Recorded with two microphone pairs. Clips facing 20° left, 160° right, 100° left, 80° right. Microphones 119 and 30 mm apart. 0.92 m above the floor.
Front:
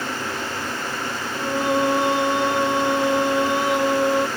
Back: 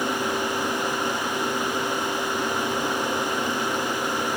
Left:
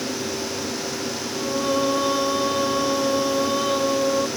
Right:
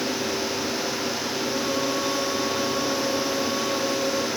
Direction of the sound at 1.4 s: 35° left.